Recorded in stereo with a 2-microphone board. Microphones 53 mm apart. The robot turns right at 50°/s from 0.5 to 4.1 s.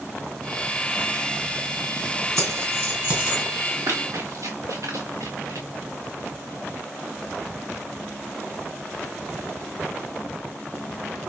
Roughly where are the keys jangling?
Right.